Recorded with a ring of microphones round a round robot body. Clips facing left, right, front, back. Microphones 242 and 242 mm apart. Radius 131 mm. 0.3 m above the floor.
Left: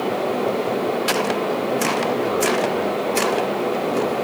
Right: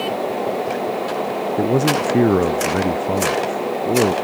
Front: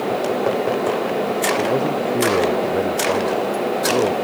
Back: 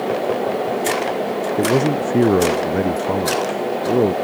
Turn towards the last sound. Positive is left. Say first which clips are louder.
# right 4 dB, back 3 dB
turn(degrees=-130)